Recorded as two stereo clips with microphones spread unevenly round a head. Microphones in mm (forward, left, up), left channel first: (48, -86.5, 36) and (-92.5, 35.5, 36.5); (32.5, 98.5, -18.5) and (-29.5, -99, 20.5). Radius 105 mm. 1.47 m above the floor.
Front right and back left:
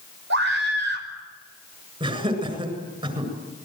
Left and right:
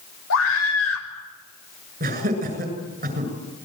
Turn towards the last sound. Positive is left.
turn(degrees=-160)